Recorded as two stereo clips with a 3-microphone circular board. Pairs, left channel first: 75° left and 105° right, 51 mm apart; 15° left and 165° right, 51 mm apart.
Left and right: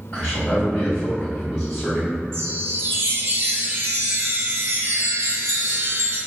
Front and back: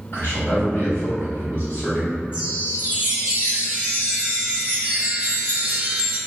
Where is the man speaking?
45° left, 1.9 m.